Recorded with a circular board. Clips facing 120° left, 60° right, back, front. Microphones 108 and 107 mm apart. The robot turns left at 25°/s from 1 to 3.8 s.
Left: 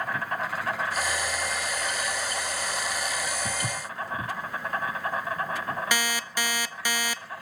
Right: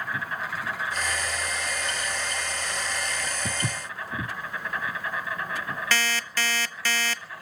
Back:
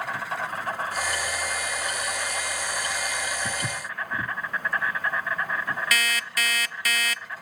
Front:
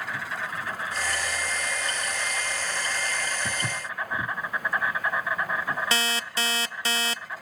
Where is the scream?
I don't hear a scream.